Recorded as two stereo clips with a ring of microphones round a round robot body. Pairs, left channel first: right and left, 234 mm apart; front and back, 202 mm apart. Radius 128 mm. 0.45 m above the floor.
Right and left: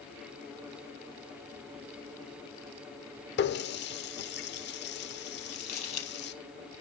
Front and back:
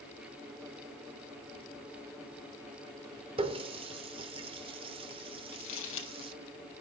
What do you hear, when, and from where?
3.4 s a running tap: 120° right, 0.8 m
5.5 s crumpling: 30° right, 4.5 m